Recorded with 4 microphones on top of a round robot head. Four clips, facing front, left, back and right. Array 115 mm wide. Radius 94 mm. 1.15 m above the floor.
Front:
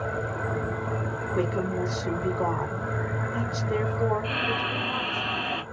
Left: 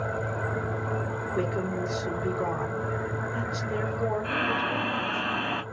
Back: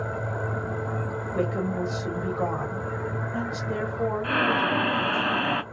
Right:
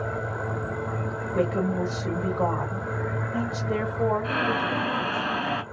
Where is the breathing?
165° right, 0.6 m.